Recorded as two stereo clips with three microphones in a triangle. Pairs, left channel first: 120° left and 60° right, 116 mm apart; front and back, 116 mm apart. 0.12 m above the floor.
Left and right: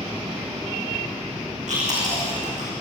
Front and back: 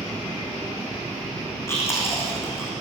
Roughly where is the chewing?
Right.